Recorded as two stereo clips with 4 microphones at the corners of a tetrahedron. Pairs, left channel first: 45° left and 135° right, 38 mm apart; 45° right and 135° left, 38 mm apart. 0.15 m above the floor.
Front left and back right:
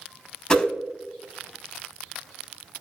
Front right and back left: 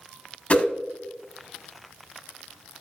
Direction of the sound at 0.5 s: 15° right.